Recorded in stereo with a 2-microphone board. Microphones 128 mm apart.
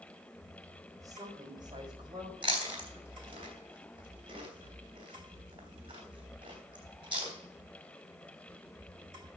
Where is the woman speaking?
25° right (ahead or behind), 3 m; by 2.3 s 40° right (ahead or behind), 5 m.